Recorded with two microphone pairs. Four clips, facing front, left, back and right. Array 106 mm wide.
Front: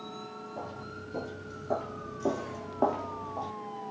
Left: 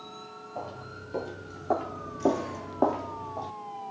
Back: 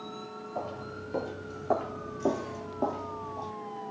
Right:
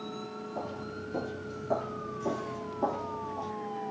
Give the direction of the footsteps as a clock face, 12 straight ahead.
6 o'clock.